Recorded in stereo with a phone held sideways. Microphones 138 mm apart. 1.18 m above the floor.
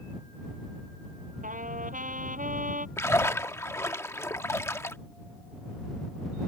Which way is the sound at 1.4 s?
70° right (ahead or behind).